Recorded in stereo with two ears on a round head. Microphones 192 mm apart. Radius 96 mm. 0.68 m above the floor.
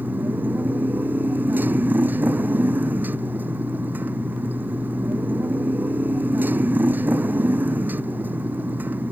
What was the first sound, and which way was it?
A motorcycle, 10° right (ahead or behind).